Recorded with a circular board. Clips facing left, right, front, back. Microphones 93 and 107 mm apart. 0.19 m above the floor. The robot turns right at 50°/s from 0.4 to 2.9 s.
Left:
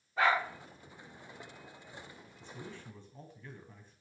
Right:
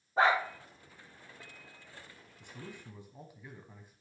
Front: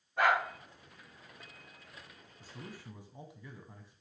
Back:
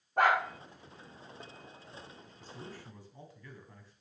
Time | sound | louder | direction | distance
0.2 | a dog barking | right 2 dB, back 2 dB | 145° right | 5 m
2.4 | a man speaking | even, back 1 dB | 60° right | 1.3 m